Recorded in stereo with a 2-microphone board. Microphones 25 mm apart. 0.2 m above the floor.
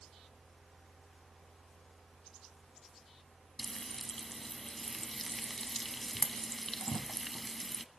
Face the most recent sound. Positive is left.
turn(degrees=10)  # may be behind; listen again after turning